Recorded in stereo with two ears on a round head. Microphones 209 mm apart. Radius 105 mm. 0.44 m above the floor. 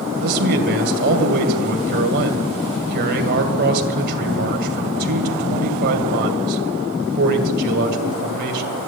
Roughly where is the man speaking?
Right.